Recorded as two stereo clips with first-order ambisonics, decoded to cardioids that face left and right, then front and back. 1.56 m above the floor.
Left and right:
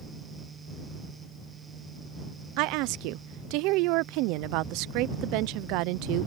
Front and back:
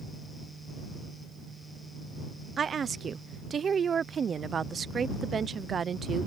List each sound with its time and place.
2.6 s a woman speaking: 115° right